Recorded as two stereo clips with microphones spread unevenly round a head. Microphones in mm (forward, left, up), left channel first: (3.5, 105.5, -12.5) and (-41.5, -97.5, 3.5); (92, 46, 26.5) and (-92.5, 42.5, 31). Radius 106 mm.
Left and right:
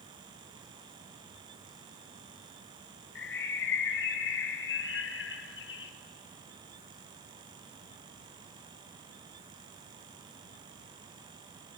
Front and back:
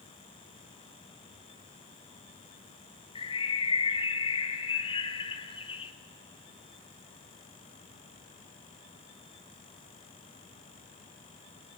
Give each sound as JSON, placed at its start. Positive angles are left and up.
{"t": 3.1, "sound": "a bird", "azimuth_deg": 60, "distance_m": 1.4}